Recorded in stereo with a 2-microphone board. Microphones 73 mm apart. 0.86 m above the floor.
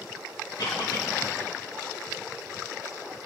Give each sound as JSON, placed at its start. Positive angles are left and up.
{"t": 0.6, "sound": "a cough", "side_deg": 70, "distance_m": 3.0}